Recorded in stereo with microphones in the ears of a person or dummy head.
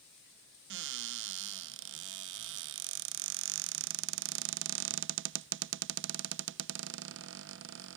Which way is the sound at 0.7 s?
55° right (ahead or behind).